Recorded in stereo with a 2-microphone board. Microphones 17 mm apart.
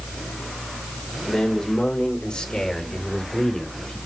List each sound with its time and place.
1.3 s a man speaking: 75° left (ahead or behind), 3.5 m; by 4.0 s 55° left (ahead or behind), 3 m